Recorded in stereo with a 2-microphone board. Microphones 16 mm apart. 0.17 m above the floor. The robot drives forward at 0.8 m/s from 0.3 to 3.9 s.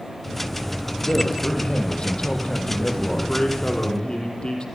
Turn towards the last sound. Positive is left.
turn(degrees=60)  # may be behind; listen again after turning